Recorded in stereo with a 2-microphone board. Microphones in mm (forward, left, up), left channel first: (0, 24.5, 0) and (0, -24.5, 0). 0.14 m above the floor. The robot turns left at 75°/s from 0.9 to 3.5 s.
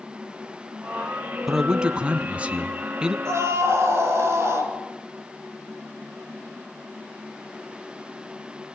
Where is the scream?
70° right (ahead or behind), 3.5 m; by 4.8 s 65° right (ahead or behind), 3.5 m.